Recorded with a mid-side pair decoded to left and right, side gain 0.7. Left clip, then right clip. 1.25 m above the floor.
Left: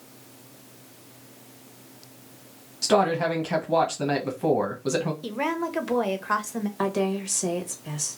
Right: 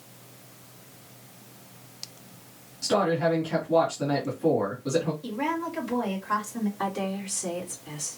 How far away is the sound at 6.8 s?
About 1.4 m.